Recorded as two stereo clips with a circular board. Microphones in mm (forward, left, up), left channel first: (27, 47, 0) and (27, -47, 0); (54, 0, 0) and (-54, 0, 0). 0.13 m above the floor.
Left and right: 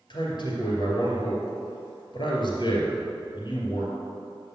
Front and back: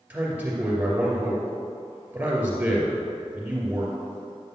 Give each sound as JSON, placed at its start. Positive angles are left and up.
{"t": 0.1, "sound": "a man speaking", "azimuth_deg": 110, "distance_m": 2.5}